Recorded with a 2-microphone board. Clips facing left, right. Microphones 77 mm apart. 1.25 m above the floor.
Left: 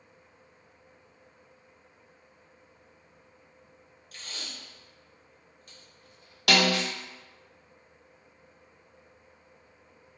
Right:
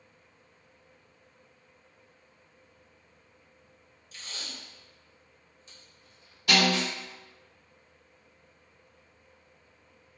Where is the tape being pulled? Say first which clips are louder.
Even; 55° left (ahead or behind), 0.7 m.